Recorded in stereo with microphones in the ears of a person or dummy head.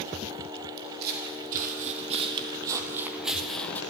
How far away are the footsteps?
About 3 m.